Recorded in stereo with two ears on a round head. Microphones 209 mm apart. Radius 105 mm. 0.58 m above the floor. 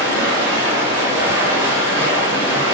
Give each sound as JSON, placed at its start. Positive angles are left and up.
{"t": 0.0, "sound": "running water", "side_deg": -15, "distance_m": 1.7}